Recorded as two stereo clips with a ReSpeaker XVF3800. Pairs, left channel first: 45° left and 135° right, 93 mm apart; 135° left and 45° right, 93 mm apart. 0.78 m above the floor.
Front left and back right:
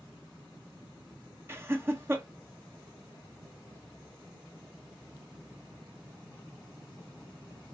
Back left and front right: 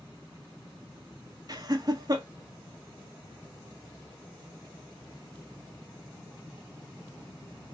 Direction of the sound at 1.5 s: 80° right.